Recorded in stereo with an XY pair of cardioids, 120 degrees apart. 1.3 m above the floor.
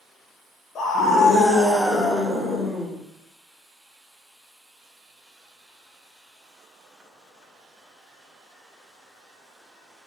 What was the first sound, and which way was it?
A scream, 55° left.